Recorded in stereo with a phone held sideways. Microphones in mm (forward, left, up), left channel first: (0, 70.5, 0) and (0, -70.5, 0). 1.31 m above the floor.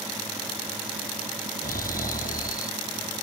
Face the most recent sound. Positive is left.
turn(degrees=85)